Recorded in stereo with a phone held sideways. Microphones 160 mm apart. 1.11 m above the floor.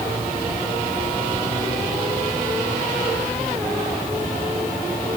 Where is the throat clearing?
I don't hear throat clearing.